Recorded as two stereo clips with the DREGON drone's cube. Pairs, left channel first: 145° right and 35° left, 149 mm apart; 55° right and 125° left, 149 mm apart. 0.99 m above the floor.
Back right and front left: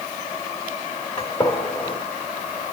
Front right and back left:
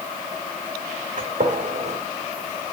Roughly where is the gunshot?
Behind.